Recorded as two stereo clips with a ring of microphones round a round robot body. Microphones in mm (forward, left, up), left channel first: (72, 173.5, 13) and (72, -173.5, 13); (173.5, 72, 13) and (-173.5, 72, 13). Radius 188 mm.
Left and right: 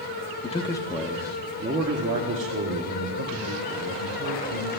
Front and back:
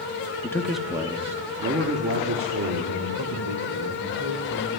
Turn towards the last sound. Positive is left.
turn(degrees=-130)